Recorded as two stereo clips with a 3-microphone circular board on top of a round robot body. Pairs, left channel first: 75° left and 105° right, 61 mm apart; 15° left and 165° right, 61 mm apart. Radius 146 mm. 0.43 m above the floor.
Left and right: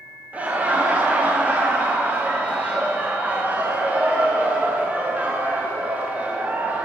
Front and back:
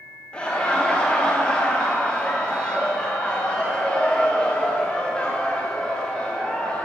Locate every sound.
0.3 s laughter: 50° right, 1.0 m